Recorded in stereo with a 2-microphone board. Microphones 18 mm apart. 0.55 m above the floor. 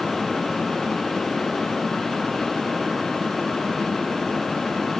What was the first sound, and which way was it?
Only background noise.